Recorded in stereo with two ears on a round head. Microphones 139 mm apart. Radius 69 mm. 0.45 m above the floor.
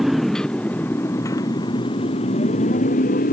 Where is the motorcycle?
Centre (ahead or behind); by 3.3 s 55° left (ahead or behind).